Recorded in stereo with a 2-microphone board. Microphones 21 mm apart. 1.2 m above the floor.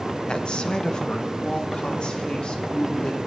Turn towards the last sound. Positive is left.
turn(degrees=55)  # may be behind; listen again after turning